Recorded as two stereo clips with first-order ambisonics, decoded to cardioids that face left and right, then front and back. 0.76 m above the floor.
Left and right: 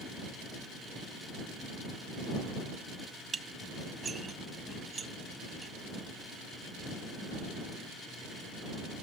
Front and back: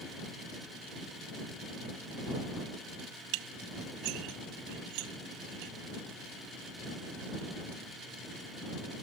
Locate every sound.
3.3 s dishes clattering: 160° right